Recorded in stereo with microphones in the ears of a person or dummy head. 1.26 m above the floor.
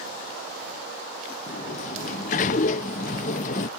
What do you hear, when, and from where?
1.5 s a sliding door: 50° left (ahead or behind)